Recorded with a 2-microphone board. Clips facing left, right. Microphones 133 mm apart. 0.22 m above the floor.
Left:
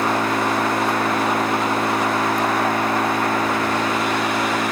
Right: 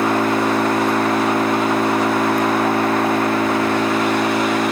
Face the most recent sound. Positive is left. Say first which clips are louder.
# right 3 dB
turn(degrees=-25)  # may be behind; listen again after turning